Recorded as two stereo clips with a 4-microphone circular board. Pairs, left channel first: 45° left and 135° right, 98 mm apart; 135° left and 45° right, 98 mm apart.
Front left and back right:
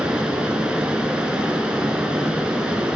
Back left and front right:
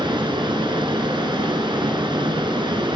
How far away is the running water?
About 1.4 m.